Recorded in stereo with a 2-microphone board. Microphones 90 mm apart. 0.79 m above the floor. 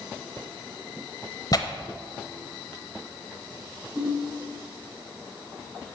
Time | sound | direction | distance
1.5 | tearing paper | 45° left (ahead or behind) | 0.8 m
4.0 | a ringtone | 50° right (ahead or behind) | 4.5 m